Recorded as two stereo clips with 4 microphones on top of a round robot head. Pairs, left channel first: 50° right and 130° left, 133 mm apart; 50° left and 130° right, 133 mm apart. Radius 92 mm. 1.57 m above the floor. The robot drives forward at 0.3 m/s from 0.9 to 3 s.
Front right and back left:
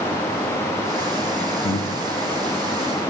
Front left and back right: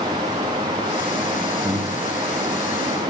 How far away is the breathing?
About 0.6 m.